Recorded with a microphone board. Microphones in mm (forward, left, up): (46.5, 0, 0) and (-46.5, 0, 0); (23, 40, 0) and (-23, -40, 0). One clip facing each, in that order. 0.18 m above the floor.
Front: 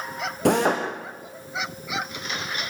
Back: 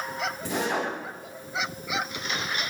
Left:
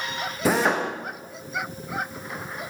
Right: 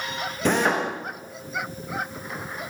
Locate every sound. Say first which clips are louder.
0.5 s a drill: front 9 dB, even; 25° right, 7.5 m